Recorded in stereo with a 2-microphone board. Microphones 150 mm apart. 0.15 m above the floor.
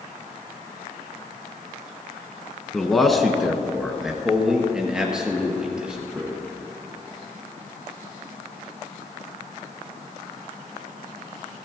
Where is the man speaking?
5° left (ahead or behind), 1.3 m; by 6.4 s 5° right (ahead or behind), 3.5 m.